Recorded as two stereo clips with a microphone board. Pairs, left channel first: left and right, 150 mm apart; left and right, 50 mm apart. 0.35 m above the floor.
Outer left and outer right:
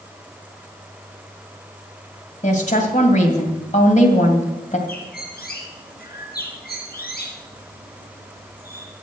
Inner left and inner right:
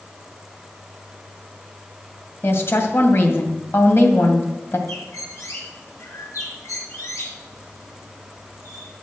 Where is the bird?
80° left, 3 m.